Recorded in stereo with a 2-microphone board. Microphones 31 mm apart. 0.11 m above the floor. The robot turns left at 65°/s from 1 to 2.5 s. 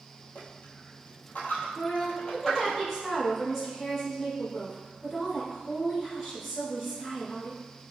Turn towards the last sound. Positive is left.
turn(degrees=-10)